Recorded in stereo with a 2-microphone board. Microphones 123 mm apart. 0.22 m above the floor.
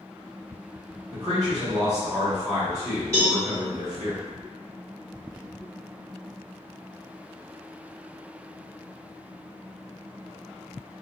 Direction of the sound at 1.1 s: 40° right (ahead or behind).